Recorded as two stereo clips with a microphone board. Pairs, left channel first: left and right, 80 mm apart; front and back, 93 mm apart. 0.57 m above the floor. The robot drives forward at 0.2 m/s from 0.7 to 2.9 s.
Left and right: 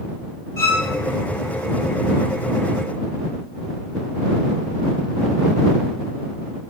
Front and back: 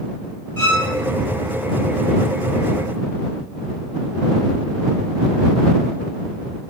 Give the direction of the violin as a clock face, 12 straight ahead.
10 o'clock.